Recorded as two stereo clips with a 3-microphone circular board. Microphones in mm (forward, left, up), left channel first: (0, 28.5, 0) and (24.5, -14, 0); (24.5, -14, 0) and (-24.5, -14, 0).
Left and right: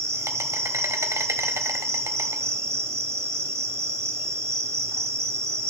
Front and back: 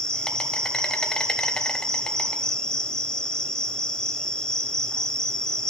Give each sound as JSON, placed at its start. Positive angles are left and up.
{"t": 0.0, "sound": "an insect", "azimuth_deg": -70, "distance_m": 1.1}